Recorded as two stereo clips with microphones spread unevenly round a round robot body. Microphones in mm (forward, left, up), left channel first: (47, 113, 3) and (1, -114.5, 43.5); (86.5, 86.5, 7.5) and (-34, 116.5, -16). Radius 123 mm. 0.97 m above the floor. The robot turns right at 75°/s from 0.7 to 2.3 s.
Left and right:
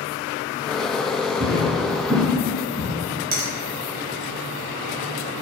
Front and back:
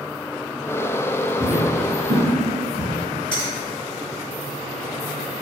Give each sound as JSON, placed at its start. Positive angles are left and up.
{"t": 1.4, "sound": "footsteps", "azimuth_deg": -90, "distance_m": 1.1}
{"t": 3.3, "sound": "a finger snap", "azimuth_deg": -110, "distance_m": 0.6}